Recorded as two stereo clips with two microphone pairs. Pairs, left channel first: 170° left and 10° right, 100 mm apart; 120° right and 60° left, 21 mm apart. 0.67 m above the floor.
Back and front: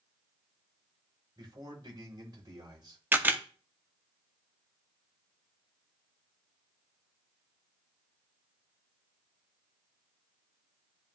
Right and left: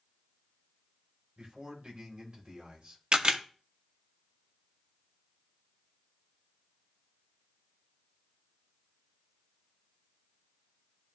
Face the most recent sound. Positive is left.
turn(degrees=55)